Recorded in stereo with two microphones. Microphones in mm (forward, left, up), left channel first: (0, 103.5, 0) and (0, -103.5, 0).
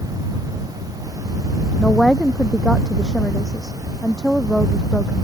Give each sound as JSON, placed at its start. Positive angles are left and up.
{"t": 1.8, "sound": "a woman speaking", "side_deg": 0}